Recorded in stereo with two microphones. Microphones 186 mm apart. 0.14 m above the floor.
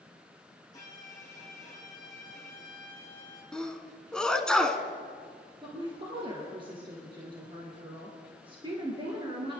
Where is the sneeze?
5° left (ahead or behind), 1.0 m.